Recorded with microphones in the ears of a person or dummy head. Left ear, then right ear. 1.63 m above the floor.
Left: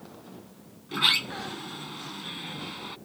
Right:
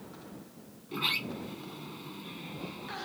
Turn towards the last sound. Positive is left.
turn(degrees=25)  # may be behind; listen again after turning